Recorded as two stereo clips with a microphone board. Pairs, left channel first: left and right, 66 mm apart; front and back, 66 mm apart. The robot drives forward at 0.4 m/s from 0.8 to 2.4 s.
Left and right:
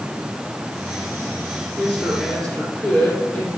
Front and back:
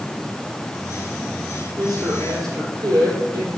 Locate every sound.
1.8 s a woman speaking: 155° left, 5 m; by 3.5 s 160° left, 5.5 m